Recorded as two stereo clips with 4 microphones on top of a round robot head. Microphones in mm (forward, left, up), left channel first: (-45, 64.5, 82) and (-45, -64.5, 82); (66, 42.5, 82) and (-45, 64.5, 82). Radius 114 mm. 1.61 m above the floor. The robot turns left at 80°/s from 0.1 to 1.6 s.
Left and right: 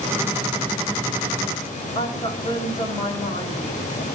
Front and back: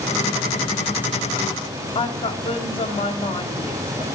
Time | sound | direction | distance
1.9 | a woman speaking | 25° left | 4 m